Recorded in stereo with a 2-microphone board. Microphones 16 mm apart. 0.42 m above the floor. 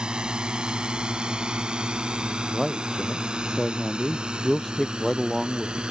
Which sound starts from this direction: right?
A drone, at 0.0 s.